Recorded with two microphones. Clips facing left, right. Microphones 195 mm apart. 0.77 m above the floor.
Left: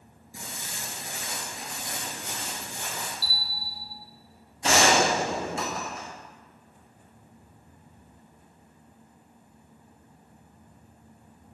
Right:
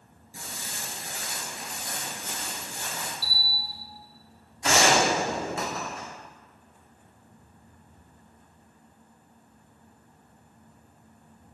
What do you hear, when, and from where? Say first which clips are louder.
0.3 s footsteps: even; 20° left (ahead or behind), 0.8 m; by 3.1 s 15° left (ahead or behind), 1.5 m
3.2 s a bell: even; 15° right (ahead or behind), 0.9 m
4.6 s a gunshot: even; 25° left (ahead or behind), 1.1 m